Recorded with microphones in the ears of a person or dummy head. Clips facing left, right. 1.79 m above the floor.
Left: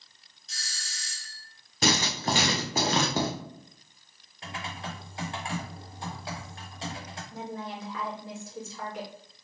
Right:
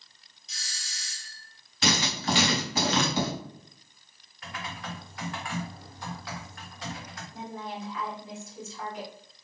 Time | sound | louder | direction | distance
0.5 | a doorbell | left 2 dB | 5° right (ahead or behind) | 0.7 m
1.8 | writing | left 1 dB | 40° left (ahead or behind) | 1.1 m
4.4 | typing on a keyboard | left 1 dB | 30° left (ahead or behind) | 1.1 m
7.3 | a woman speaking | left 1 dB | 55° left (ahead or behind) | 2 m